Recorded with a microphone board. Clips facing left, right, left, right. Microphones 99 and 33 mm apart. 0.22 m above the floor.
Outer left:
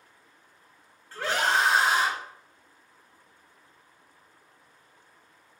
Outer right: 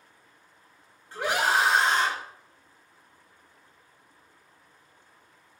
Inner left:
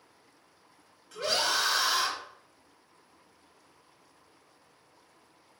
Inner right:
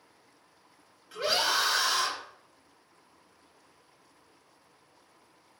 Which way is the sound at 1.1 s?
20° right (ahead or behind).